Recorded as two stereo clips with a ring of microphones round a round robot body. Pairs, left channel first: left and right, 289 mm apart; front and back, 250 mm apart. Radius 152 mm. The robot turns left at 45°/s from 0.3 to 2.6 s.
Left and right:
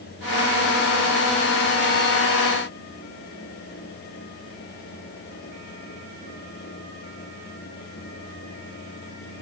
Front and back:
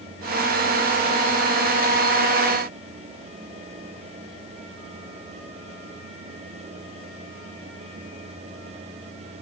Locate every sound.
Only background noise.